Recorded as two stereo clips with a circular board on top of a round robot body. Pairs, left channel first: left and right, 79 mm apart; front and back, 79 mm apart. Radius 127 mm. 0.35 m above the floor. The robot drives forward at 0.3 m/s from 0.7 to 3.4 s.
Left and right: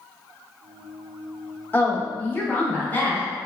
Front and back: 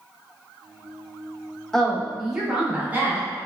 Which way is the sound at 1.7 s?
75° left.